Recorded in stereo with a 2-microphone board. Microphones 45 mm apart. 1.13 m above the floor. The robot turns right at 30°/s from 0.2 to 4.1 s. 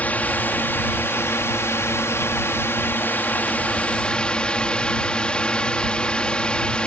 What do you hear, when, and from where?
0.0 s a drone: 40° left; by 6.9 s 155° left